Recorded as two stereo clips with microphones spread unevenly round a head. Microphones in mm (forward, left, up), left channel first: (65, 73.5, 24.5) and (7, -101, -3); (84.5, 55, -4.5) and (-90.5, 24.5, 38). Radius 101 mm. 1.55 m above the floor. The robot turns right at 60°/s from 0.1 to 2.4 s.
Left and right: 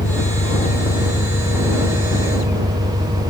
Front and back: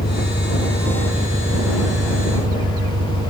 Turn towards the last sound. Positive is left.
turn(degrees=-175)